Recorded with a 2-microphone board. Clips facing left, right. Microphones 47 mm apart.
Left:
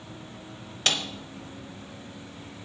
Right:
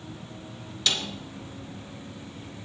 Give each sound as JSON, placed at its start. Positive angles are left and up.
{"t": 0.9, "sound": "a snare drum", "side_deg": 45, "distance_m": 1.0}